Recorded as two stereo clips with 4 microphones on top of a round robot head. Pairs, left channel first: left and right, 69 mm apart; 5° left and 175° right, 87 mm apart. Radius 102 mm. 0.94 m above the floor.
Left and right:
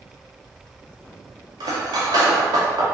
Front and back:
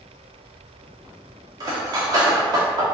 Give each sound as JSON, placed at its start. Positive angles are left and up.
{"t": 1.6, "sound": "cutlery clinking", "azimuth_deg": -125, "distance_m": 0.5}